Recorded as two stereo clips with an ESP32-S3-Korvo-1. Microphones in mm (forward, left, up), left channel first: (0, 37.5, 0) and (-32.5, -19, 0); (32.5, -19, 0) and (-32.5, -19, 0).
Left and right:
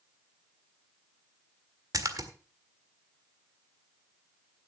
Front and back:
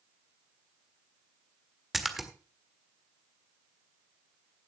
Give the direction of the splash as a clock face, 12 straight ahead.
3 o'clock.